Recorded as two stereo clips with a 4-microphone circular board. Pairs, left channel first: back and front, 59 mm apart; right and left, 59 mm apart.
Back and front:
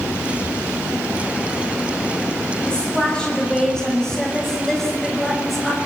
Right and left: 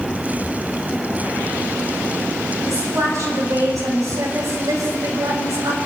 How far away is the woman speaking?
About 6.5 m.